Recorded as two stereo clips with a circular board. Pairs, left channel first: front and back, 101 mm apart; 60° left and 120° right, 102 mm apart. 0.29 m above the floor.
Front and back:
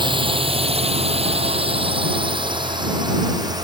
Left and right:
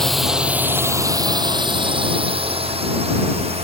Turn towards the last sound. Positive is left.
turn(degrees=-130)